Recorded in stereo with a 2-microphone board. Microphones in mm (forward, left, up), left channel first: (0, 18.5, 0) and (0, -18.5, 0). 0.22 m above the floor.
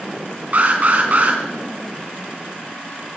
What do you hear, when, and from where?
0.5 s an alarm: 45° right (ahead or behind), 3 m